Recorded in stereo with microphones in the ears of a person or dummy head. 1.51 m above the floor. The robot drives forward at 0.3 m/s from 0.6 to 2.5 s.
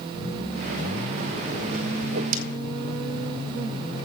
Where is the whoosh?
60° right (ahead or behind), 1.1 m; by 2.4 s 55° right (ahead or behind), 1.2 m.